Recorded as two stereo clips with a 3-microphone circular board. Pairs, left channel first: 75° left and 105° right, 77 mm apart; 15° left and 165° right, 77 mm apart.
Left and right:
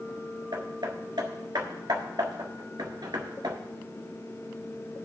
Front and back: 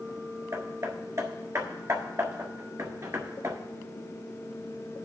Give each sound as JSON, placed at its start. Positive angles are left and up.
{"t": 0.5, "sound": "hammering", "azimuth_deg": -120, "distance_m": 1.4}